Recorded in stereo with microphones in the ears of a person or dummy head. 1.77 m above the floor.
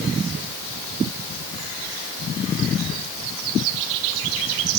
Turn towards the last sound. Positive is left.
No sound to turn to.